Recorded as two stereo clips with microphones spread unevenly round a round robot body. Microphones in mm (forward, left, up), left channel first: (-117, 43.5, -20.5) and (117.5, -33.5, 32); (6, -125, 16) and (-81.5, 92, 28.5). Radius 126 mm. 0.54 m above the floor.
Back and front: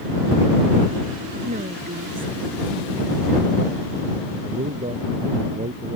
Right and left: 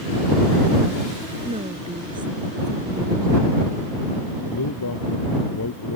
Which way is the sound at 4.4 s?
85° right.